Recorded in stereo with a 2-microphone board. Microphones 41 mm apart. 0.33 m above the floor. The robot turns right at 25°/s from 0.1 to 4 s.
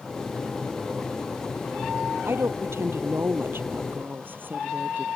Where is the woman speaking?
95° right; by 5.1 s 50° right.